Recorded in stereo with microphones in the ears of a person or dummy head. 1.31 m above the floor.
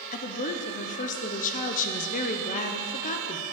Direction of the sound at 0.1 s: 40° left (ahead or behind).